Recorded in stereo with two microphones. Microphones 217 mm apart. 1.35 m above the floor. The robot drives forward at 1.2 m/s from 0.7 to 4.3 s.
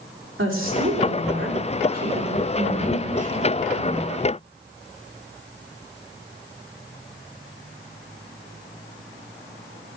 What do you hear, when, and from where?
0.4 s a woman speaking: 70° right (ahead or behind), 3.5 m; by 4.0 s 30° right (ahead or behind), 6 m